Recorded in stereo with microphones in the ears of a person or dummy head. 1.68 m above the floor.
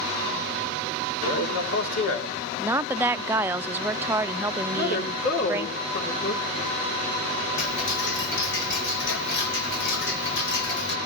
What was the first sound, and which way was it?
A man speaking, 85° left.